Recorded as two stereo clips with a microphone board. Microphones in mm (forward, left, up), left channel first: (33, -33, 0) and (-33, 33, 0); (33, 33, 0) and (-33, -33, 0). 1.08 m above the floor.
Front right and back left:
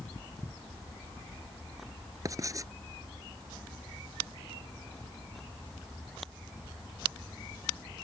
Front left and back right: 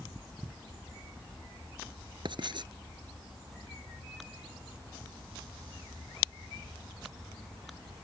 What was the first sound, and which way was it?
Writing, 170° right.